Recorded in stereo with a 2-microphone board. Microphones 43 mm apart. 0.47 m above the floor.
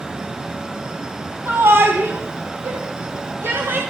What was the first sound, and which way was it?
A shout, 60° right (ahead or behind).